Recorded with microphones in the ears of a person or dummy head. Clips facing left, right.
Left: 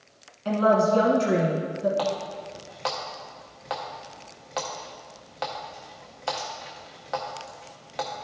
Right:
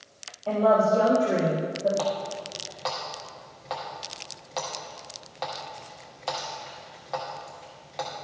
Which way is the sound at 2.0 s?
15° left (ahead or behind).